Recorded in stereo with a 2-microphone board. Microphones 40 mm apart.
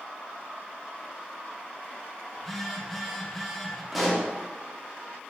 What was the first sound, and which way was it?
A phone buzzing, 5° left (ahead or behind).